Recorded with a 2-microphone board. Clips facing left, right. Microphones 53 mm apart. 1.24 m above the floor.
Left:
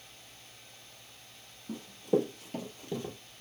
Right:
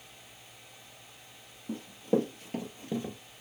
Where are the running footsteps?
40° right (ahead or behind), 2 m; by 3.2 s 15° right (ahead or behind), 1.2 m.